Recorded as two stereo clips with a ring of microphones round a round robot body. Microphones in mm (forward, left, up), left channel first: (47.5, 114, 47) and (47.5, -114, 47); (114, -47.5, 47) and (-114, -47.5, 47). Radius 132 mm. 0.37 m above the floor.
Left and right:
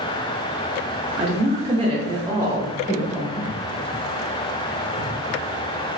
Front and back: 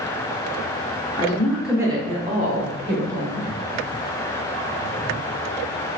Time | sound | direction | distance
1.2 | a woman speaking | 55° right | 1.0 m